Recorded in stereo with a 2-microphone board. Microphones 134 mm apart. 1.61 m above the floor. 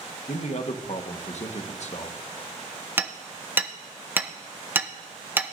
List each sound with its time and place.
0.3 s a man speaking: 55° left (ahead or behind), 1.4 m
3.0 s hammering: 15° right (ahead or behind), 0.7 m